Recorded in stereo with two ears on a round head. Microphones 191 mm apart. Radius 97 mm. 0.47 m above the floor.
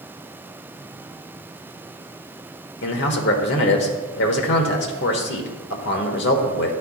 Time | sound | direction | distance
2.8 | a man speaking | 55° left (ahead or behind) | 1.2 m